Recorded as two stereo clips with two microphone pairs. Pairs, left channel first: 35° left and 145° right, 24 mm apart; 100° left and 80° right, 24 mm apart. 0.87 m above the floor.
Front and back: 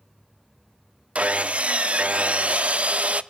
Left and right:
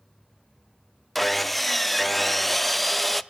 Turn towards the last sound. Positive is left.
turn(degrees=-170)